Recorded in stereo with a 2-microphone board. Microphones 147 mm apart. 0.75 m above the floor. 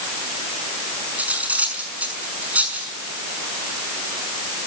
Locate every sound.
1.2 s cutlery clinking: 10° right (ahead or behind), 5.5 m